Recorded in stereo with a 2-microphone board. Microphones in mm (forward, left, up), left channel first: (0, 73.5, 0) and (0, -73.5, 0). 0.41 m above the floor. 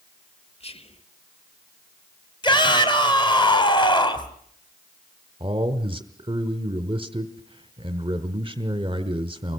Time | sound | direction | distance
0.6 | whispering | 40° left (ahead or behind) | 1.2 m
2.4 | a shout | 30° left (ahead or behind) | 3 m
5.4 | a man speaking | 35° right (ahead or behind) | 1.2 m